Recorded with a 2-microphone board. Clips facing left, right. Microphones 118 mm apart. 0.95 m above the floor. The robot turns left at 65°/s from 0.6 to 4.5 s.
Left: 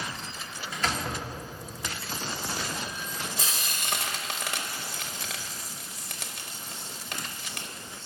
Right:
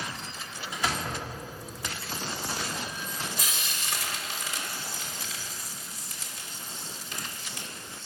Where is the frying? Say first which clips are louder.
Left 1 dB; 25° left (ahead or behind), 1.1 m; by 7.7 s 65° left (ahead or behind), 1.1 m.